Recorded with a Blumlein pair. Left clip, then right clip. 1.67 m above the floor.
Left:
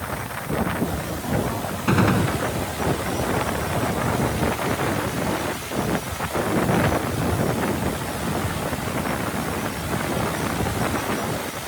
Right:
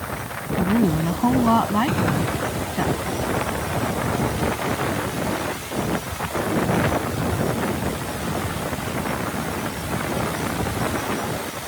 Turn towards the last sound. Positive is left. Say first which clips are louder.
# left 2 dB
turn(degrees=15)